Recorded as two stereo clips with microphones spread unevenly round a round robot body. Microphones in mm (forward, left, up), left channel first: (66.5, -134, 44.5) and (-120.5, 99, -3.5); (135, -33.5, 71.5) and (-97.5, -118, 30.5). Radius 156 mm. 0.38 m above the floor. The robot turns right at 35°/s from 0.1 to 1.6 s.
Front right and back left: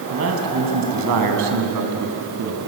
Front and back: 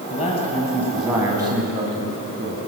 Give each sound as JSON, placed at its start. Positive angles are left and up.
{"t": 0.1, "sound": "a man speaking", "azimuth_deg": 85, "distance_m": 3.5}